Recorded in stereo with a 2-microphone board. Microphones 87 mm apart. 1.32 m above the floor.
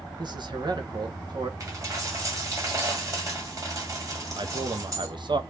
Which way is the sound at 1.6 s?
40° right (ahead or behind).